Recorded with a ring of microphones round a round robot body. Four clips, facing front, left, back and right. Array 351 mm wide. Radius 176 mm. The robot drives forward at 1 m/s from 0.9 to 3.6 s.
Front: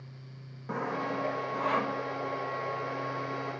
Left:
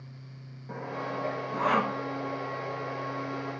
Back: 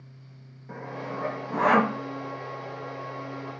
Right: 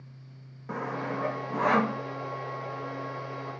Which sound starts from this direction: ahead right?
Sawing, at 0.7 s.